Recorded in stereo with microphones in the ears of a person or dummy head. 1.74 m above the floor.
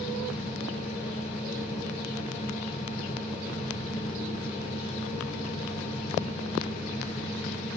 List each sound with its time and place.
0.0 s a fan: 35° left (ahead or behind), 1.0 m